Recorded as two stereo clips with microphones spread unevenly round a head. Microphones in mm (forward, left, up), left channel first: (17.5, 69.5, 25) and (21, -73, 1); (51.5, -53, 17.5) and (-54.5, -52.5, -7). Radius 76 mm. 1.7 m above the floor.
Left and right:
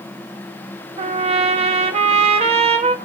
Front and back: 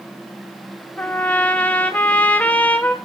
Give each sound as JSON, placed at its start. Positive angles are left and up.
{"t": 1.0, "sound": "a trumpet", "azimuth_deg": -50, "distance_m": 0.7}